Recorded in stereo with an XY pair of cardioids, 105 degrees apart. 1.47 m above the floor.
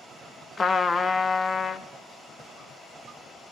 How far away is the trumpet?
About 0.5 m.